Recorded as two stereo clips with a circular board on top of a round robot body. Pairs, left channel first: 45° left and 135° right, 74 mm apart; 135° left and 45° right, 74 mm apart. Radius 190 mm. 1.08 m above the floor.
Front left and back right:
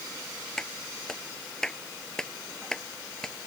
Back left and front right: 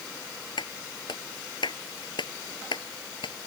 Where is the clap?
130° left.